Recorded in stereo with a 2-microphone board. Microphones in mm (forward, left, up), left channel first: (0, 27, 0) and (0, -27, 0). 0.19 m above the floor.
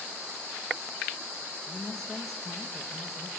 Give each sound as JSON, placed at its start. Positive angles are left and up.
{"t": 1.7, "sound": "a woman speaking", "side_deg": 10, "distance_m": 5.5}